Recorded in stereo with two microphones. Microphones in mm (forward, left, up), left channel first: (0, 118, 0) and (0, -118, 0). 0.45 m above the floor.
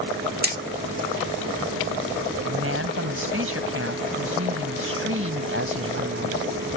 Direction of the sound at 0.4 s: 40° right (ahead or behind).